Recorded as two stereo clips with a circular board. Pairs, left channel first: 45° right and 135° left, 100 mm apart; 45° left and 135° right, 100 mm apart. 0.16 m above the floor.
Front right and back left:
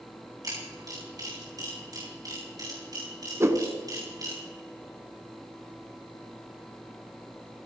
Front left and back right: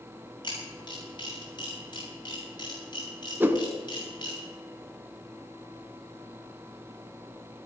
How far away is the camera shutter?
About 8.5 m.